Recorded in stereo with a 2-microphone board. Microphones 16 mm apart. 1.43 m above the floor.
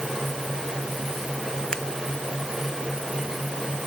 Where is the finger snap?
40° left (ahead or behind).